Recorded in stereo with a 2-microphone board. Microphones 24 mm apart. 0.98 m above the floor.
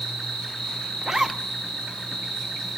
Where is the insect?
35° left (ahead or behind), 3 m.